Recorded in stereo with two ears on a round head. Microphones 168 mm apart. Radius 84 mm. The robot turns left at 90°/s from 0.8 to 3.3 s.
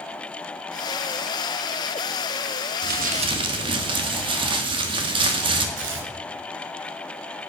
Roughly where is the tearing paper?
Right.